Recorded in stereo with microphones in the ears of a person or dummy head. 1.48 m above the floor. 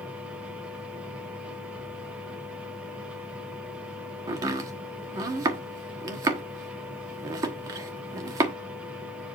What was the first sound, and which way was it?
A machine running, 10° right (ahead or behind).